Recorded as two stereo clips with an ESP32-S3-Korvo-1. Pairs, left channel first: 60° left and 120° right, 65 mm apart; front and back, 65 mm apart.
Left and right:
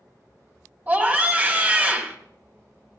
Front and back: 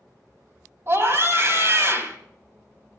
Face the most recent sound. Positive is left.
turn(degrees=-170)